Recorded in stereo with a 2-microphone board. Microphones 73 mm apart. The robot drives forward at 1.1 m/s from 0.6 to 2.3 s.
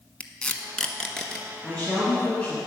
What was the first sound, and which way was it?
Tape being pulled, 15° left (ahead or behind).